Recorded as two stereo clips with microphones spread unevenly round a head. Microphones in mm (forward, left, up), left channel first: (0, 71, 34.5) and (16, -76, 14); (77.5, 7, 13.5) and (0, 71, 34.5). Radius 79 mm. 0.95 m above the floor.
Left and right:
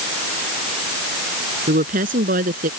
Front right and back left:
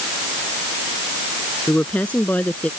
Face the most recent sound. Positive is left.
turn(degrees=-120)